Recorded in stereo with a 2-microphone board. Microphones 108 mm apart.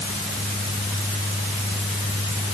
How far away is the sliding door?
I don't hear a sliding door.